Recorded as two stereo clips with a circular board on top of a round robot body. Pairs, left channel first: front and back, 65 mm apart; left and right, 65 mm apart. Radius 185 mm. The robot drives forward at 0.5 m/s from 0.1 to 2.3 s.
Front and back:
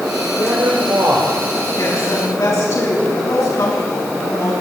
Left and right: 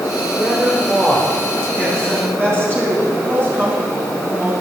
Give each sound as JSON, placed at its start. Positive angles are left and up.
{"t": 0.3, "sound": "a man speaking", "azimuth_deg": -160, "distance_m": 1.9}
{"t": 1.8, "sound": "a woman speaking", "azimuth_deg": -40, "distance_m": 4.5}